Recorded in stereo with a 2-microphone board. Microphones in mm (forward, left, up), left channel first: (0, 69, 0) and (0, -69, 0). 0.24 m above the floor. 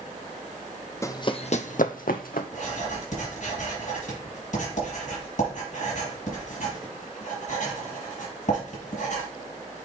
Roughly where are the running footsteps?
Left.